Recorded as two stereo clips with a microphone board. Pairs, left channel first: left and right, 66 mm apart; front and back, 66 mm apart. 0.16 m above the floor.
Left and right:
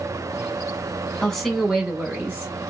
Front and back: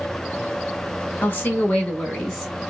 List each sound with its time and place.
1.2 s a woman speaking: 15° left, 1.1 m; by 2.5 s 80° right, 1.2 m